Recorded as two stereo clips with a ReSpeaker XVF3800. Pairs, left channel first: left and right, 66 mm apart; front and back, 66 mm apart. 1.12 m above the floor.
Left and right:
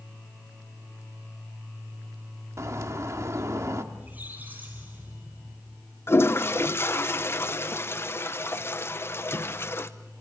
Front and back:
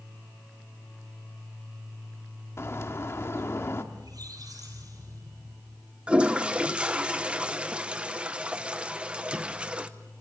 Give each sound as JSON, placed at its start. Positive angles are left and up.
{"t": 2.6, "sound": "a bird", "azimuth_deg": -50, "distance_m": 1.3}
{"t": 3.9, "sound": "a squeak", "azimuth_deg": -155, "distance_m": 9.5}
{"t": 6.1, "sound": "a toilet flushing", "azimuth_deg": 115, "distance_m": 0.9}